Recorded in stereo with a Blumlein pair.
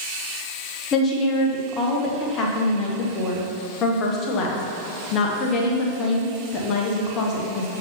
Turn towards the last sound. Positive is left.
turn(degrees=30)